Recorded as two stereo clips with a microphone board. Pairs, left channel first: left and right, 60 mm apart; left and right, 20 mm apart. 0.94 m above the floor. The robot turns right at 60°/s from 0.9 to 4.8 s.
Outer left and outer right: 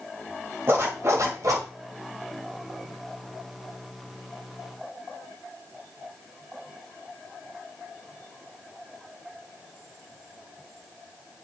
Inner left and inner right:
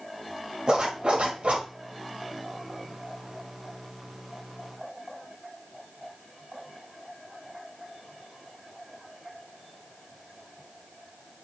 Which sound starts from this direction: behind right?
A zipper, at 0.7 s.